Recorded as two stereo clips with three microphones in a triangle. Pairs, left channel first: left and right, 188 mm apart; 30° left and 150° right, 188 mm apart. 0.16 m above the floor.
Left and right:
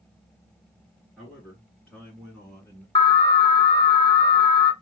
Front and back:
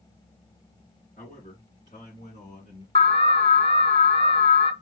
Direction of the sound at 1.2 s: 5° right.